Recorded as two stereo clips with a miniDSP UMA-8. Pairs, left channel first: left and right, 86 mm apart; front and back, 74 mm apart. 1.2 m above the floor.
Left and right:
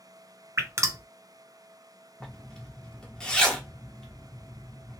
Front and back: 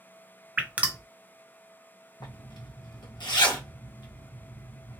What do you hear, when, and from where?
0.6 s dripping: 120° right, 0.7 m
2.2 s a zipper: 10° left, 1.2 m